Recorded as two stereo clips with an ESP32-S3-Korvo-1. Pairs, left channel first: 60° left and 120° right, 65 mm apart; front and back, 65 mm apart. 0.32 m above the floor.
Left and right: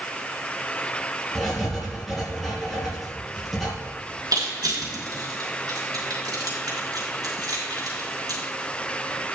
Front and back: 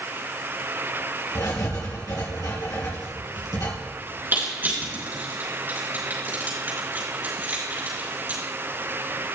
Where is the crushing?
120° right, 4.5 m.